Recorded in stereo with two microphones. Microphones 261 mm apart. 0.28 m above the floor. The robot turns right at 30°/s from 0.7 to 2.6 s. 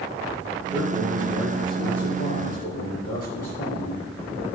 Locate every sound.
0.7 s a man speaking: 5° left, 5 m; by 4.5 s 60° left, 5 m